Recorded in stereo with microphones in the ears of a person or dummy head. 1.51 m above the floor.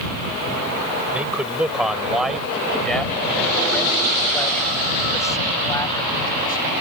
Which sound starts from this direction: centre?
A man speaking, at 1.1 s.